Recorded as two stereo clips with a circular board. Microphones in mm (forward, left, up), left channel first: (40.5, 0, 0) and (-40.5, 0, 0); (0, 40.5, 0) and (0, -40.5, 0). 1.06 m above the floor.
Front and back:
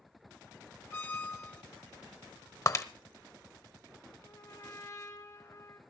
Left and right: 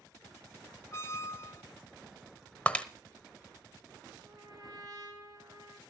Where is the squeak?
55° left, 0.9 m.